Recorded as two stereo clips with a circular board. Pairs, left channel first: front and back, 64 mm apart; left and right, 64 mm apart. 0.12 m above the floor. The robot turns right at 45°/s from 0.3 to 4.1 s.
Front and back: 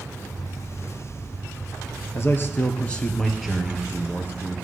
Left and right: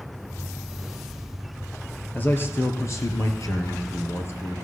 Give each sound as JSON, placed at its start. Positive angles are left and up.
{"t": 2.1, "sound": "a man speaking", "azimuth_deg": 35, "distance_m": 2.5}